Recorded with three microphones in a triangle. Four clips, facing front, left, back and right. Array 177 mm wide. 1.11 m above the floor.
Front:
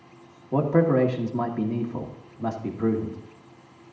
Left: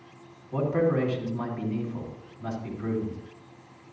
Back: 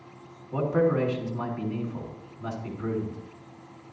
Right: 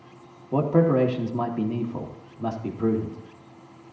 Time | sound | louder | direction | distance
0.5 | a man speaking | right 4 dB, front 3 dB | 45° right | 2.0 m